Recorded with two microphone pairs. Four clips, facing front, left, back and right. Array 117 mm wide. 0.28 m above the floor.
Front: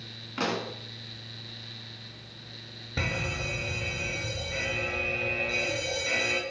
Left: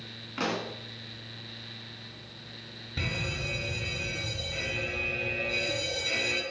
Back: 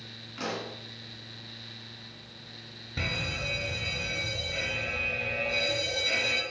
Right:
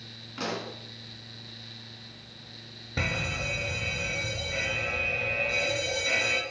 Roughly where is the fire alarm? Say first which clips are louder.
Right 3 dB, front 3 dB; ahead right.